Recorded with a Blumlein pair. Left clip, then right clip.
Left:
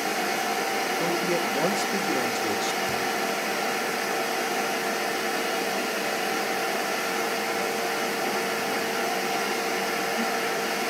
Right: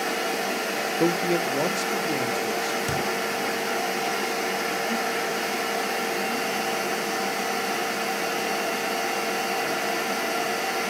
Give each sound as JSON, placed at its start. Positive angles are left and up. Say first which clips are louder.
{"t": 1.0, "sound": "a man speaking", "louder": "right 2 dB", "azimuth_deg": -15, "distance_m": 1.4}
{"t": 2.9, "sound": "a thud", "louder": "right 1 dB", "azimuth_deg": -50, "distance_m": 4.0}